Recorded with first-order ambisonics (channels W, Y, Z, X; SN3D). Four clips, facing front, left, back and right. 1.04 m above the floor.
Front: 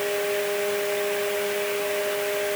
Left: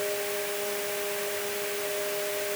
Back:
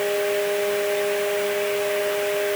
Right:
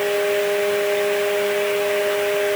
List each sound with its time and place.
Only background noise.